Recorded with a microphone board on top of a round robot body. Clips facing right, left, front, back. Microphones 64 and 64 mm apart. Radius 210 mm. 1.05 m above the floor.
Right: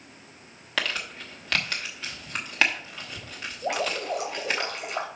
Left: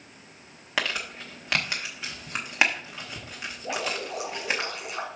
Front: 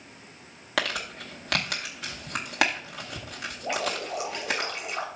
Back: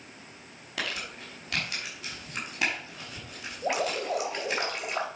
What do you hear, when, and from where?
0.8 s crumpling: 15° left, 0.7 m
3.6 s dripping: 130° right, 2 m